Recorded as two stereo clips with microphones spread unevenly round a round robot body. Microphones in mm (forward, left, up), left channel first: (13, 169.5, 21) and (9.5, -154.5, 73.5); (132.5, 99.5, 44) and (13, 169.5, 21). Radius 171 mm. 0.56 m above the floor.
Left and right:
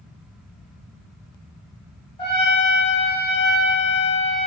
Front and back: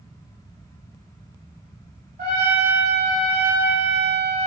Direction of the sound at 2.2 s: 160° left.